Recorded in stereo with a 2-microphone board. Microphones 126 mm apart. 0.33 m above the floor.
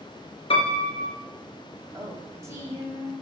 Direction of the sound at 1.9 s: 25° right (ahead or behind).